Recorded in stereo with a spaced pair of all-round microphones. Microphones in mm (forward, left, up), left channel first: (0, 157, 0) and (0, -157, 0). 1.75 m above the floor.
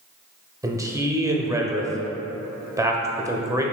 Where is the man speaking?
10° right (ahead or behind), 0.5 m.